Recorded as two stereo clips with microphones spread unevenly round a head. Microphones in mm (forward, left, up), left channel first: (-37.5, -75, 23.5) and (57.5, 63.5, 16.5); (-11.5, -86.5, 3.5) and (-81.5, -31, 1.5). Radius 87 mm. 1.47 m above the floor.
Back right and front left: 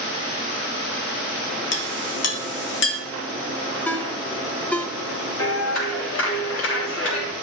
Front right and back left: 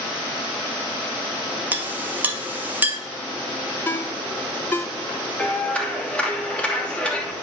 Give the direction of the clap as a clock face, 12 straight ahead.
4 o'clock.